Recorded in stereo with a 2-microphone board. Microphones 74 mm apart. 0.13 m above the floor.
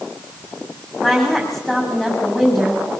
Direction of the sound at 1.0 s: 5° left (ahead or behind).